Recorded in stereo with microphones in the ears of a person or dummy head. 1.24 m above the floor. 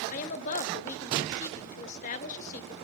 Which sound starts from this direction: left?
A woman speaking, at 0.1 s.